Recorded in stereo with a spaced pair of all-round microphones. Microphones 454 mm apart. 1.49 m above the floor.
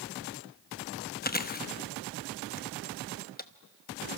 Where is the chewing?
20° left (ahead or behind), 0.9 m.